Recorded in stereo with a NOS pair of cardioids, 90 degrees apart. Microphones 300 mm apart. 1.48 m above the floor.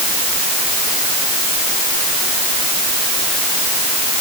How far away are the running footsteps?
I don't hear running footsteps.